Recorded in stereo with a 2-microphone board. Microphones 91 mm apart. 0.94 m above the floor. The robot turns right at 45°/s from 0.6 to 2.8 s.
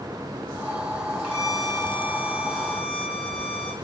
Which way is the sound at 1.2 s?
10° right.